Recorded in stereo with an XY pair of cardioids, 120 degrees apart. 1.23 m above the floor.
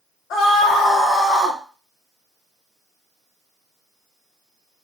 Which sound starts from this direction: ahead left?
A scream, at 0.3 s.